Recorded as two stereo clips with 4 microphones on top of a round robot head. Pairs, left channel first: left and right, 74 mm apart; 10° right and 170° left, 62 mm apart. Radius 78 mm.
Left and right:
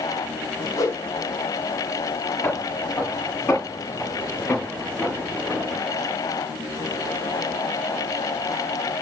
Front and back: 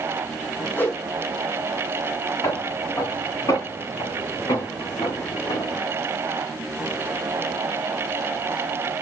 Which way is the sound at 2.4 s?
25° left.